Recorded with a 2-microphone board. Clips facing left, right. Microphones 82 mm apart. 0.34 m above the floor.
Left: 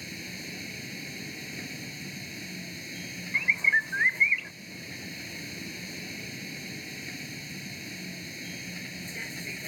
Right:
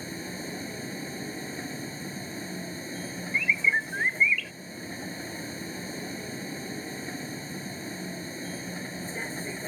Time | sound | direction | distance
0.0 | a vehicle | 35° right (ahead or behind) | ?
3.3 | a bird | 25° left (ahead or behind) | ?